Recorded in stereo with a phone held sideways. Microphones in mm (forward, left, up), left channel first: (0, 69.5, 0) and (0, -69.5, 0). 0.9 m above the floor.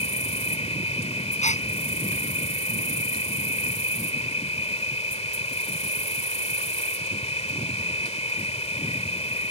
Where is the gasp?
60° left (ahead or behind).